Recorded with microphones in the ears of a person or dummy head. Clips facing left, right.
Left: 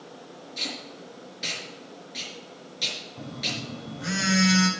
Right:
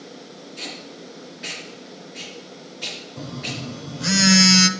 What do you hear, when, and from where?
0.6 s tape being pulled: 50° left (ahead or behind), 4.5 m
3.2 s a phone buzzing: 65° right (ahead or behind), 0.9 m